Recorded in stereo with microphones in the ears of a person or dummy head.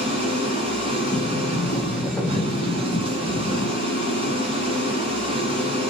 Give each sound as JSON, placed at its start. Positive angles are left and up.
{"t": 0.0, "sound": "an engine running", "side_deg": -35, "distance_m": 0.9}
{"t": 1.1, "sound": "a sliding door", "side_deg": 10, "distance_m": 0.9}